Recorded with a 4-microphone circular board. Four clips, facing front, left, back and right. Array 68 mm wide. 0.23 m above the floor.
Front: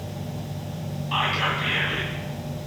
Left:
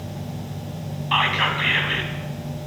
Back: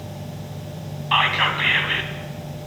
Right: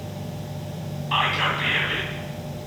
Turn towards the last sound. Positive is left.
turn(degrees=160)